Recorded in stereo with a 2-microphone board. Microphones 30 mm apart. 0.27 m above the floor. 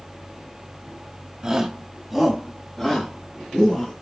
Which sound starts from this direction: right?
A shout, at 1.4 s.